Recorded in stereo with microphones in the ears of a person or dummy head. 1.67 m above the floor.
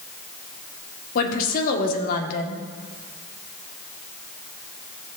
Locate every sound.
1.1 s a woman speaking: 50° left (ahead or behind), 1.6 m